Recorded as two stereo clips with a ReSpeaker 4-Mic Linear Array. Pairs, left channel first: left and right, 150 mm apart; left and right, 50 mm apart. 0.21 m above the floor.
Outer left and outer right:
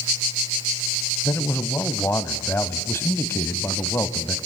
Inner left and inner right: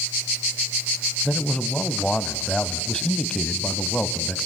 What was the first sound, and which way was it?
A man speaking, 15° left (ahead or behind).